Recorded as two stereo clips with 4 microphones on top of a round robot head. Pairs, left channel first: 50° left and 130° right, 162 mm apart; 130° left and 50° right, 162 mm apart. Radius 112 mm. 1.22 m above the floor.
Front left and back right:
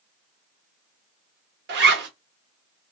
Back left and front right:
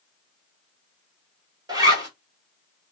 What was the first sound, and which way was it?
A zipper, 120° right.